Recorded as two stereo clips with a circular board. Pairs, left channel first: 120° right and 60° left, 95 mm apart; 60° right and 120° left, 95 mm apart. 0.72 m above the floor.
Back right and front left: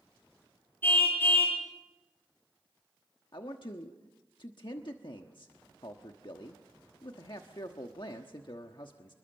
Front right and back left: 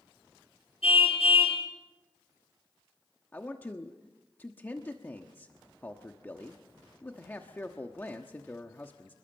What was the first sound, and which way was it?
A car horn, 50° right.